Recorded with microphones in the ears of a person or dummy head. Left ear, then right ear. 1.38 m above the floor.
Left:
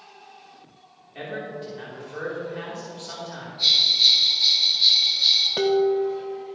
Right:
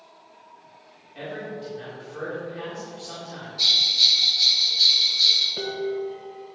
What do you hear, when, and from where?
1.1 s a man speaking: 25° left (ahead or behind), 3.5 m
3.6 s a bell: 70° right (ahead or behind), 3.5 m
5.6 s dishes clattering: 35° left (ahead or behind), 0.7 m